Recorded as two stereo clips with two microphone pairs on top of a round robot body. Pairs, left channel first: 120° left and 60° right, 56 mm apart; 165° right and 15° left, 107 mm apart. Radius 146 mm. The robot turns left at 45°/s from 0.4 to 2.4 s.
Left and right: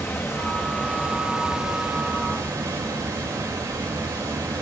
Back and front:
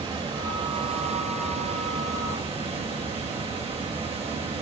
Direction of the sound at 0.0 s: 70° left.